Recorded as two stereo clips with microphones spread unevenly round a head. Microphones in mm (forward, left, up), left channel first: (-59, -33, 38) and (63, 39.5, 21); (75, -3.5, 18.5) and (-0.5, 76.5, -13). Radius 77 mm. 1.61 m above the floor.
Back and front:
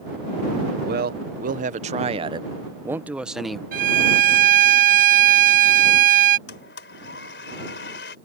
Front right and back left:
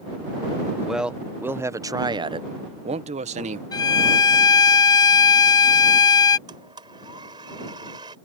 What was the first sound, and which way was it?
A man speaking, 45° left.